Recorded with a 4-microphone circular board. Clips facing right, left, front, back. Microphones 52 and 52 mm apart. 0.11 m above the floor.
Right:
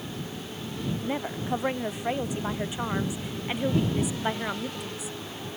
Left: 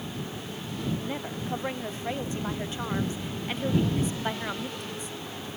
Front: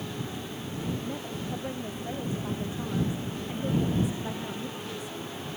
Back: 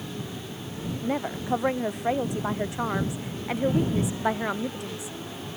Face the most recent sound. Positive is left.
turn(degrees=-175)